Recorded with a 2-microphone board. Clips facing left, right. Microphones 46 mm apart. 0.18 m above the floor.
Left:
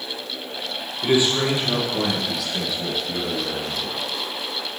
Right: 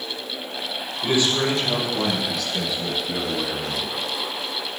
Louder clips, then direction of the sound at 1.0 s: Left 2 dB; 15° left (ahead or behind).